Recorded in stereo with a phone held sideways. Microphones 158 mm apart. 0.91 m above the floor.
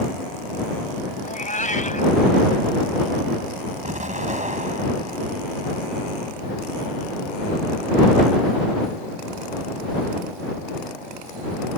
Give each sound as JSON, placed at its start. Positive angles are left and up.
{"t": 1.2, "sound": "a cat meowing", "side_deg": 55}
{"t": 3.8, "sound": "an explosion", "side_deg": -50}